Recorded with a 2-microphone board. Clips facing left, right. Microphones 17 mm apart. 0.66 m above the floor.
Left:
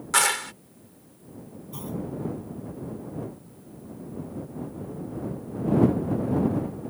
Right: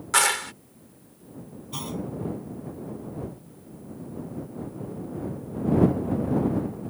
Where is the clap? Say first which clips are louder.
Right 1 dB; centre (ahead or behind).